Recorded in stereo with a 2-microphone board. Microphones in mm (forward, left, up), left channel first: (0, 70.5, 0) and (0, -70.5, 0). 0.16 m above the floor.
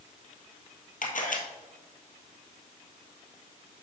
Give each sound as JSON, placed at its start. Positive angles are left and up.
{"t": 1.0, "sound": "a camera shutter", "side_deg": 75, "distance_m": 1.5}